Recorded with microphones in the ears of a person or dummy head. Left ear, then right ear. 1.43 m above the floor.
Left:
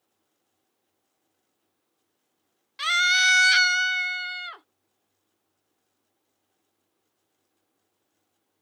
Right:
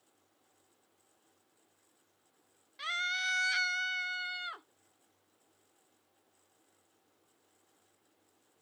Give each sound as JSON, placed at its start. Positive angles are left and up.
{"t": 2.8, "sound": "a scream", "side_deg": 35}